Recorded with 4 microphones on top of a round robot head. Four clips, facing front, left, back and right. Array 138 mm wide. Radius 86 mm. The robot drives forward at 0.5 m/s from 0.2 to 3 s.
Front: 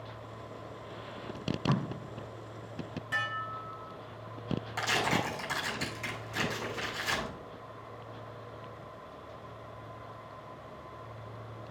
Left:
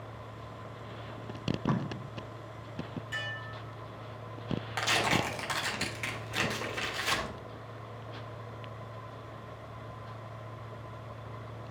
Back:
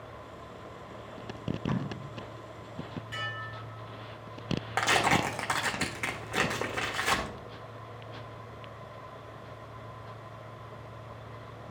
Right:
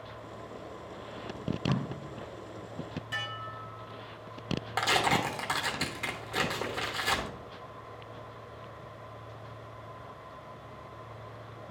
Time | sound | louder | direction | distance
1.4 | tape being pulled | left 1 dB, front 1 dB | 35° left | 1.2 m
3.1 | dishes clattering | right 2 dB, front 6 dB | 15° right | 1.3 m
4.8 | tearing paper | right 3 dB, back 5 dB | 155° right | 1.2 m